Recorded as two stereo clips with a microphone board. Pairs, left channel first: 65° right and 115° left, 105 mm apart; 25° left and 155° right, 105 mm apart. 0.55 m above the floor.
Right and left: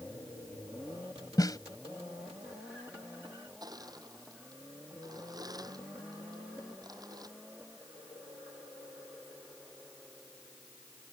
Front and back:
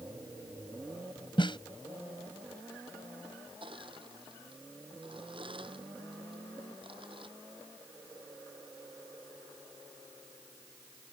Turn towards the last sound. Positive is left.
turn(degrees=165)